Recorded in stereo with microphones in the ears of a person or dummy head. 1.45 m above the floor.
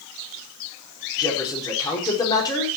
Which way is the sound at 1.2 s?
20° left (ahead or behind).